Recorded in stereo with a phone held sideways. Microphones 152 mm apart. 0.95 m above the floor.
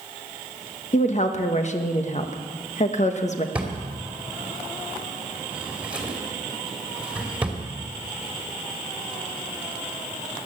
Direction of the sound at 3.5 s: 10° right (ahead or behind).